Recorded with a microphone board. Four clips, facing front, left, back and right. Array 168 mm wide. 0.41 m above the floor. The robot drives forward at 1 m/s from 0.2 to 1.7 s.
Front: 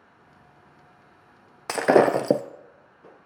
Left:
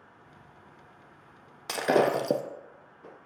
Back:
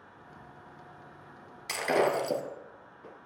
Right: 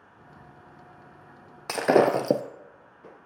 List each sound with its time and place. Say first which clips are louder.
1.7 s breaking glass: right 4 dB, front 9 dB; 15° right, 0.5 m